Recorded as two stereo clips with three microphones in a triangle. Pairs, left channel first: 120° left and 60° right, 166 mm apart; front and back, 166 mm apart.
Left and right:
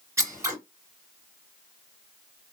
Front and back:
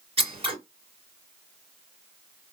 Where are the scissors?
130° right, 2.5 m.